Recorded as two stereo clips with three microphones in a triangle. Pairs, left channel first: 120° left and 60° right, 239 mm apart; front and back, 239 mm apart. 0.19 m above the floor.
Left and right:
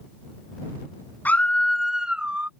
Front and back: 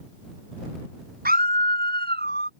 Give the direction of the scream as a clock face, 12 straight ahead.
5 o'clock.